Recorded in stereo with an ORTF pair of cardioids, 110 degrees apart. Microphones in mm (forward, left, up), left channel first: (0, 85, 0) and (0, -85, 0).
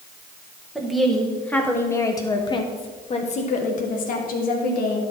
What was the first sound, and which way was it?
A woman speaking, 5° right.